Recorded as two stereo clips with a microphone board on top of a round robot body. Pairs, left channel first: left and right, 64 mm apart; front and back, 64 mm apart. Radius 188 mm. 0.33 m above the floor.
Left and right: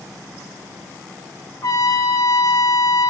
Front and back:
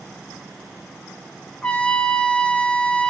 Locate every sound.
1.6 s a trumpet: 70° left, 2 m